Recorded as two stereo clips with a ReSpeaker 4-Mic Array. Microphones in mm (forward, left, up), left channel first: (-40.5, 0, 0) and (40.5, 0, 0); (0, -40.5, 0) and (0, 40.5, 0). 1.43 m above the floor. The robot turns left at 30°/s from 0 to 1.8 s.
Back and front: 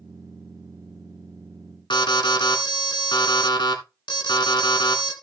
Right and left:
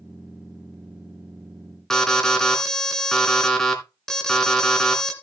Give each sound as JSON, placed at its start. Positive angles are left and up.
{"t": 1.9, "sound": "an alarm", "azimuth_deg": -175, "distance_m": 2.5}